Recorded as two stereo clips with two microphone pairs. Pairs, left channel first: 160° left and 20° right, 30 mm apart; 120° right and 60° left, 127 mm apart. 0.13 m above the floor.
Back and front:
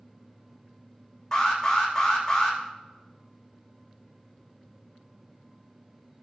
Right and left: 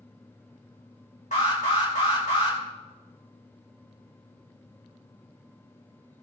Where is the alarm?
135° right, 4 m.